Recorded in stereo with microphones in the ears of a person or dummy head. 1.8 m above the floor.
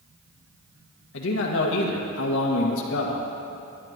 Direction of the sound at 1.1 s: 75° left (ahead or behind).